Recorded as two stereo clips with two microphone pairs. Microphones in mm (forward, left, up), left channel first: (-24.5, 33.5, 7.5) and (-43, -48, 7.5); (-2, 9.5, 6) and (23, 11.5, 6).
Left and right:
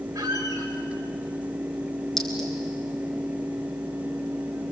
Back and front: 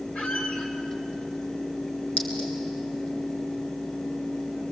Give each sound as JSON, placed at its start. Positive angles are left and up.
{"t": 0.1, "sound": "a squeak", "azimuth_deg": -150, "distance_m": 5.0}
{"t": 2.2, "sound": "a clink", "azimuth_deg": 165, "distance_m": 6.0}